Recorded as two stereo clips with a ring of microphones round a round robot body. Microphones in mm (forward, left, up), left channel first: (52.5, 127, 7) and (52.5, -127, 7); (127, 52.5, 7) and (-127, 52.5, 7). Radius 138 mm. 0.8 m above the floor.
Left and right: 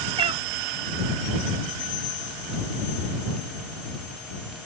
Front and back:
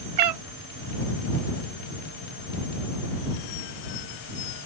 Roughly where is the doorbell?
No doorbell in this recording.